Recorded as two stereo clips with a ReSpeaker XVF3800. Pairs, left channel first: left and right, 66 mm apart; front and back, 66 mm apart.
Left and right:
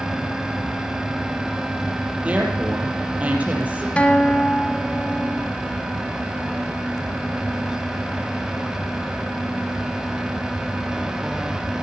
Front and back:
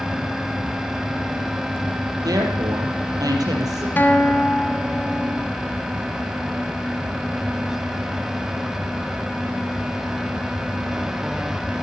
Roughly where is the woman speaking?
Behind.